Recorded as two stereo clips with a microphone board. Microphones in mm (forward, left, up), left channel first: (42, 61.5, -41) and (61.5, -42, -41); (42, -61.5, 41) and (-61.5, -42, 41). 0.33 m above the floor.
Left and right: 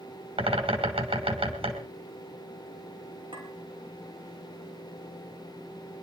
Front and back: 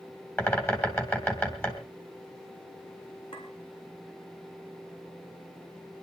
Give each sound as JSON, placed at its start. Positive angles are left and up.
{"t": 0.4, "sound": "a bird", "azimuth_deg": -80, "distance_m": 3.0}
{"t": 3.3, "sound": "a clink", "azimuth_deg": -40, "distance_m": 4.5}